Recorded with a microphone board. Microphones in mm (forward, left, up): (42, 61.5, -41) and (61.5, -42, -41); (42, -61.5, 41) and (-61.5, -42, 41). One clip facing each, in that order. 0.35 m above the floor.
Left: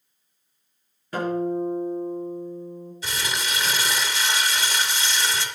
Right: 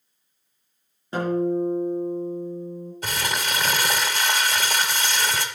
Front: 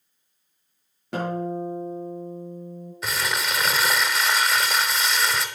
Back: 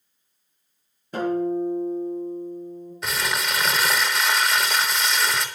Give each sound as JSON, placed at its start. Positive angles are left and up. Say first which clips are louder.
{"t": 1.1, "sound": "a guitar", "louder": "right 2 dB, back 4 dB", "azimuth_deg": -15, "distance_m": 7.0}
{"t": 3.0, "sound": "crumpling", "louder": "right 2 dB, even", "azimuth_deg": -100, "distance_m": 1.2}